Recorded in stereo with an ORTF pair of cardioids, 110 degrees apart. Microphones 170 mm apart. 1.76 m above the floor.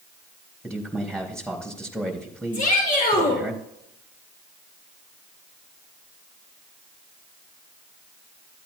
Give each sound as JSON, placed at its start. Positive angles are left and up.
{"t": 0.6, "sound": "a man speaking", "azimuth_deg": 5, "distance_m": 3.5}
{"t": 2.5, "sound": "a shout", "azimuth_deg": 55, "distance_m": 6.0}